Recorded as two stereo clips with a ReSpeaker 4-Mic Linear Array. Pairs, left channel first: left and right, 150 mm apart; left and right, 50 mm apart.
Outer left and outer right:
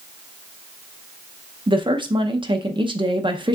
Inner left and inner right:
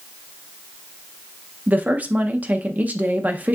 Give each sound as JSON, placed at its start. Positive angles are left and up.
{"t": 1.7, "sound": "a woman speaking", "side_deg": -30, "distance_m": 0.6}